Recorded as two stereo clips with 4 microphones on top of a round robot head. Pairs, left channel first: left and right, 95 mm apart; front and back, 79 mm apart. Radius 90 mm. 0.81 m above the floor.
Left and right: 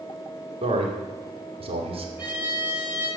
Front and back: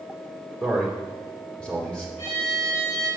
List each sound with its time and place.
0.6 s a man speaking: 80° right, 2.5 m
2.2 s a violin: 20° right, 7 m